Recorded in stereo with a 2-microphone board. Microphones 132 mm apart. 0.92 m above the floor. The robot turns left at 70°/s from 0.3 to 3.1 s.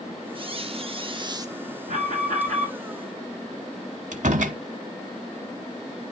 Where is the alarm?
75° right, 6 m; by 2.7 s 135° right, 6 m.